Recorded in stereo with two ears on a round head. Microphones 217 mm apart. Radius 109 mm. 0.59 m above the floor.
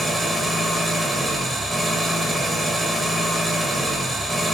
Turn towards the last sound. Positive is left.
turn(degrees=0)  # may be behind; listen again after turning